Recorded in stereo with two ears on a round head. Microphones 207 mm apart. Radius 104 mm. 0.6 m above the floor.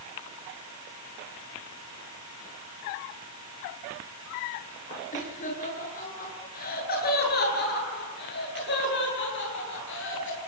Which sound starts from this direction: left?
Laughter, at 5.1 s.